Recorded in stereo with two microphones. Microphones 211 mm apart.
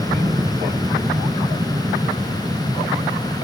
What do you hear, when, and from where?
0.0 s an aircraft: 15° right (ahead or behind)